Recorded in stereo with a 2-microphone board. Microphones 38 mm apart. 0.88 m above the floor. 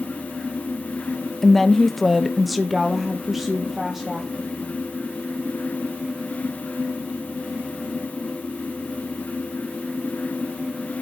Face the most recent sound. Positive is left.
turn(degrees=-10)  # may be behind; listen again after turning